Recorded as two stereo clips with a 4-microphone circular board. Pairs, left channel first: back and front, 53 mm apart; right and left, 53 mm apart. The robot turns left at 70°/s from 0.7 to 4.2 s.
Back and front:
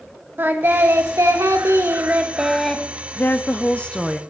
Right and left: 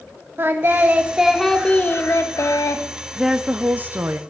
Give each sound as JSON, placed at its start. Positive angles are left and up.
{"t": 0.4, "sound": "singing", "azimuth_deg": 45, "distance_m": 0.8}
{"t": 3.2, "sound": "a woman speaking", "azimuth_deg": 170, "distance_m": 0.6}